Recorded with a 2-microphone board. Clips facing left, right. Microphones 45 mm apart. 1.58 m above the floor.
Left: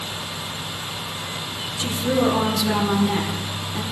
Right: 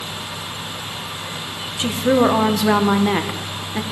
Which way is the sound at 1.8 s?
45° right (ahead or behind).